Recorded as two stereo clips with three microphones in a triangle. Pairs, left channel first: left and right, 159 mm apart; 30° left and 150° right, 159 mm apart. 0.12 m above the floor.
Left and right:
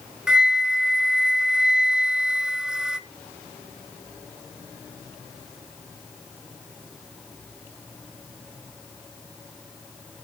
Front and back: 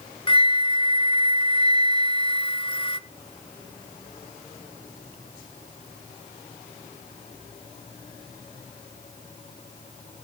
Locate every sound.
0.3 s a flute: 5° right, 0.6 m